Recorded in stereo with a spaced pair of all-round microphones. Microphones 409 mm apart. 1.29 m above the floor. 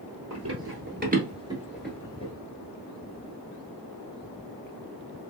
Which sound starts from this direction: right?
Running footsteps, at 0.3 s.